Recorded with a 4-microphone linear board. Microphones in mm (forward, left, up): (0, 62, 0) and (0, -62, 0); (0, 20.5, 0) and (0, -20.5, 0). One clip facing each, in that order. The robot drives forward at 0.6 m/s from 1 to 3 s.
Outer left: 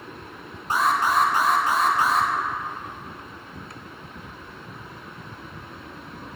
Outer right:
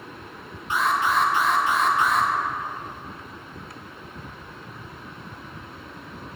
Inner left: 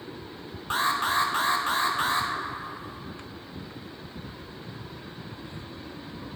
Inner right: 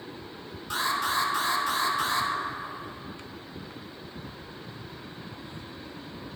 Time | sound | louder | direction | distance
0.7 | an alarm | outer left 1 dB, inner left 2 dB | 40° left (ahead or behind) | 0.9 m